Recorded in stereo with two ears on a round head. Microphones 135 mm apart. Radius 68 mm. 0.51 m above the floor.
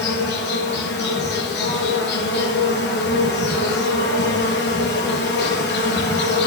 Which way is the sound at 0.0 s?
85° left.